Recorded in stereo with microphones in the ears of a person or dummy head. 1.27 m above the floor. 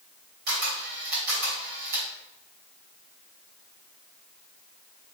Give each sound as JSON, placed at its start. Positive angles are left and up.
{"t": 0.5, "sound": "a camera shutter", "side_deg": -55, "distance_m": 2.5}